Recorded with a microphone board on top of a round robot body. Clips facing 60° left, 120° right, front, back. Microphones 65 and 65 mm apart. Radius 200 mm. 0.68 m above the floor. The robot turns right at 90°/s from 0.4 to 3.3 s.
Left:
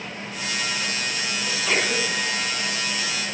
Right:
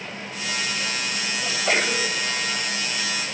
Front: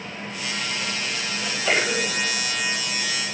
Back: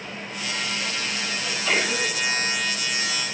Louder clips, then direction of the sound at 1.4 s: Right 1 dB, front 2 dB; 80° right.